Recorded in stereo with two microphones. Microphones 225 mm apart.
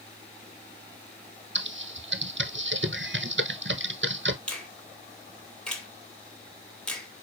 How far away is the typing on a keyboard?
About 0.7 m.